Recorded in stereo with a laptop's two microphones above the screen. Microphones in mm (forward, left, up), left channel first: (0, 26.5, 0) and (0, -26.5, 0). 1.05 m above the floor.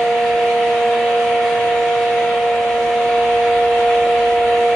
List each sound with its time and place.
0.0 s a fan: 5° left (ahead or behind), 1.4 m